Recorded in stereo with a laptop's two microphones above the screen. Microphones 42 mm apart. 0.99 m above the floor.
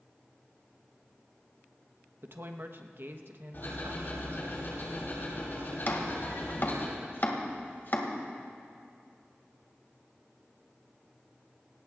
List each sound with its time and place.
2.2 s a woman speaking: 55° right (ahead or behind), 1.1 m
3.5 s ticking: 50° left (ahead or behind), 6.5 m
5.9 s chopping: 50° left (ahead or behind), 2 m